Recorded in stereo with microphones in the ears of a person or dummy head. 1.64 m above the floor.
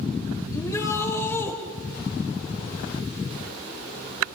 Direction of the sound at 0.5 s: 25° left (ahead or behind).